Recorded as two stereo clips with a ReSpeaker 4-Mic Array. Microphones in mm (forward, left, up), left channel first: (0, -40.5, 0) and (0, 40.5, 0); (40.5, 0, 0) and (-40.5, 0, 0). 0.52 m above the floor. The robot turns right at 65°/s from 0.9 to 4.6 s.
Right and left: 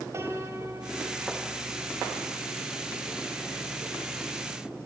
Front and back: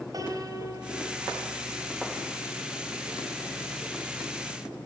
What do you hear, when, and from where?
0.1 s a piano: 140° left, 2.5 m; by 3.4 s 55° right, 2.5 m